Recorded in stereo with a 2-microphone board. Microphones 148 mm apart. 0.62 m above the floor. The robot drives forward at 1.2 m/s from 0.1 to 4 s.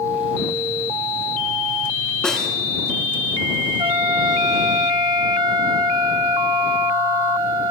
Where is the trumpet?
35° right (ahead or behind), 0.8 m; by 7.7 s 30° right (ahead or behind), 1.0 m.